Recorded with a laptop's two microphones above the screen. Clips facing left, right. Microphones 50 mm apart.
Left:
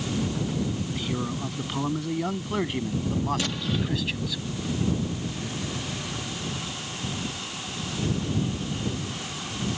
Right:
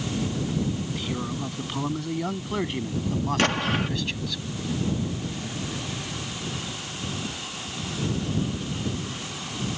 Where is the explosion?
60° right (ahead or behind).